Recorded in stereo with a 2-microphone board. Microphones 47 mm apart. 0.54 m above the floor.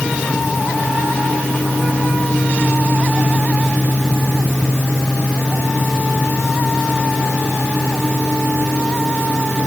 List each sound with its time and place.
Only background noise.